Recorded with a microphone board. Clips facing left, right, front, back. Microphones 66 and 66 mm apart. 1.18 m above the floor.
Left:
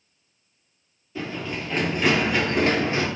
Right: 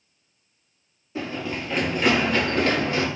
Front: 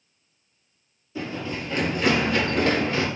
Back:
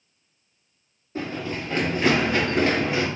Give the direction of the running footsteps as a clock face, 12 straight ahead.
5 o'clock.